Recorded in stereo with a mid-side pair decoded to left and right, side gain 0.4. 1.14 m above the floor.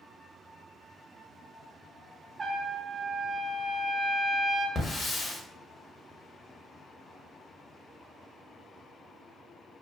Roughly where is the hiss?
Ahead left.